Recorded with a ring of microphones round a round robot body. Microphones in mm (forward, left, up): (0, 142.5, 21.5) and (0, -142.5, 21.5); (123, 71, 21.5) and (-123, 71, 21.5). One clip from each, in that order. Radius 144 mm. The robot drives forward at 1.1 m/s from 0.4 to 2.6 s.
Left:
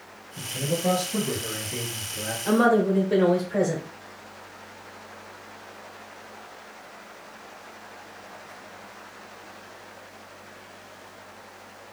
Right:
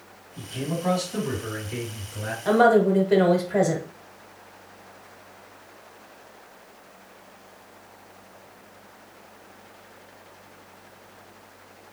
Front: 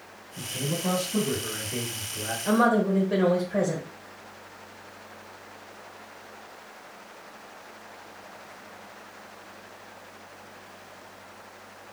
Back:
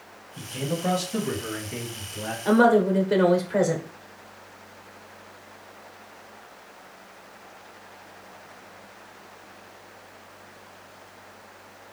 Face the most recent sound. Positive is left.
turn(degrees=-160)